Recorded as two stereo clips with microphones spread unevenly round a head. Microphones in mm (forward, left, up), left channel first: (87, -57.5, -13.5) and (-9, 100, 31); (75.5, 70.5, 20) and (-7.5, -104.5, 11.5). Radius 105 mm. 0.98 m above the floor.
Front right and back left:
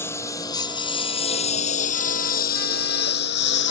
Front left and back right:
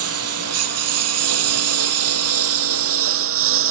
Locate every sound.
0.0 s a lawn mower: 140° right; by 3.7 s 100° right